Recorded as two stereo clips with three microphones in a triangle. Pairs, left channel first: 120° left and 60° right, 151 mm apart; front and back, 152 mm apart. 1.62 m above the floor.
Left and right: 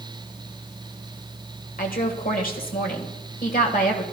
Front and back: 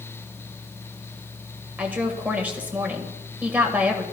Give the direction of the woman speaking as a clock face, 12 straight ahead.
9 o'clock.